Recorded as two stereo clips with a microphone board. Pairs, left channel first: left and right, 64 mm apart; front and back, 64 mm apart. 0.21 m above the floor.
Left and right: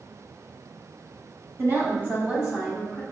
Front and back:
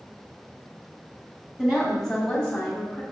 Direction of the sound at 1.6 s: 100° right.